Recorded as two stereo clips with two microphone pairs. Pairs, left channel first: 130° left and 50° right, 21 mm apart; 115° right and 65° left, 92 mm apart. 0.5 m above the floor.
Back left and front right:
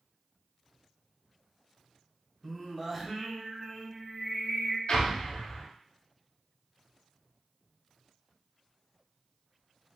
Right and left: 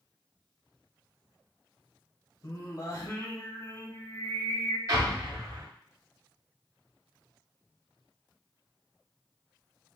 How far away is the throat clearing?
No throat clearing in this recording.